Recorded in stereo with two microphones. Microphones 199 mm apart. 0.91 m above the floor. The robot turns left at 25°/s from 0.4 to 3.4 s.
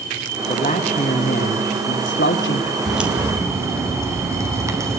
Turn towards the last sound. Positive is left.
turn(degrees=-15)  # may be behind; listen again after turning